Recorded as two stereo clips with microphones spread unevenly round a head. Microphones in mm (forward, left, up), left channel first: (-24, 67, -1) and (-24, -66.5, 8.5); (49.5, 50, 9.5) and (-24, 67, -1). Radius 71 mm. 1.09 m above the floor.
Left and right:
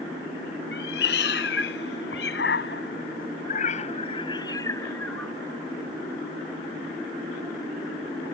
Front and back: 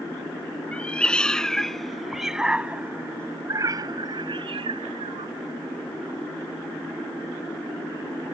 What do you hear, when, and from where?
0.7 s a cat meowing: 60° left; by 5.3 s 175° left